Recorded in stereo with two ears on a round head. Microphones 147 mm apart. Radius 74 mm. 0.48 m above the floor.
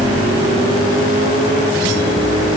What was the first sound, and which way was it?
Only background noise.